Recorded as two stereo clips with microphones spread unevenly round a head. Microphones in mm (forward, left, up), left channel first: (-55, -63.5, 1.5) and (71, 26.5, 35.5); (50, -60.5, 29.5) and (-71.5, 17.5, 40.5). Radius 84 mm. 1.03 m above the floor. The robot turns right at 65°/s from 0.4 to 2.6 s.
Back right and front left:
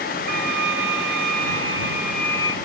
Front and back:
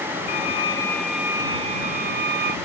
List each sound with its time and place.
0.3 s a violin: 10° left; by 2.5 s 150° left